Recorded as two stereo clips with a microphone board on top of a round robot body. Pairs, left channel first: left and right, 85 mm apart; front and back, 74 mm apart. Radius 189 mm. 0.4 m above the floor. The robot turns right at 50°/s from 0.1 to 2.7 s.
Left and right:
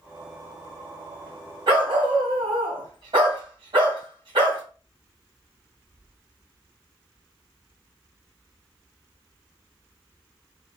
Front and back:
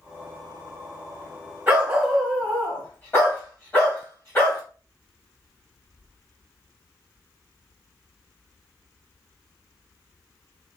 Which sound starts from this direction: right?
A dog barking, at 1.7 s.